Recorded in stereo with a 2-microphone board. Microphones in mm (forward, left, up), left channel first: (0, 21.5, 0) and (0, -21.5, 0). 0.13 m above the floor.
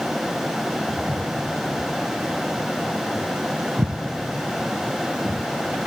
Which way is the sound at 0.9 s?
45° right (ahead or behind).